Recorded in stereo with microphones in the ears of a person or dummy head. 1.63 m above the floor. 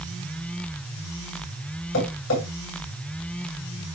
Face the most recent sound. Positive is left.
turn(degrees=70)  # may be behind; listen again after turning